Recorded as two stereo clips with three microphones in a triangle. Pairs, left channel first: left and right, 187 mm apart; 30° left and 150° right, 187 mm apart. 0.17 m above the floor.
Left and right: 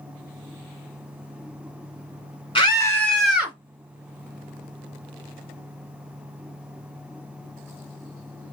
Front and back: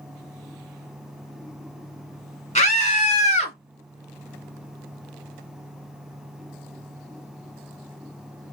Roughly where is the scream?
Ahead left.